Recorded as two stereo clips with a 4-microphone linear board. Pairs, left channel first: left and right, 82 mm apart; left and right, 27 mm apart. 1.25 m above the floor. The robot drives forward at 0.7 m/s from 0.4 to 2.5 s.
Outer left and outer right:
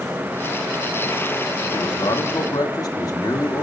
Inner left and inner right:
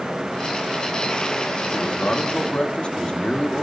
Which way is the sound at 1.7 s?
60° left (ahead or behind).